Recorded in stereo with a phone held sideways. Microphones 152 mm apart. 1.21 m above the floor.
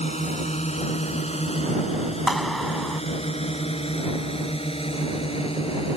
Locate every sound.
0.0 s a drone: 45° left (ahead or behind); by 6.0 s 40° left (ahead or behind)
2.3 s a clap: centre (ahead or behind)